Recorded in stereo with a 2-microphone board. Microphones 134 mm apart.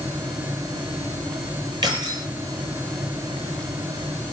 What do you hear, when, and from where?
1.8 s keys jangling: 30° right (ahead or behind), 7 m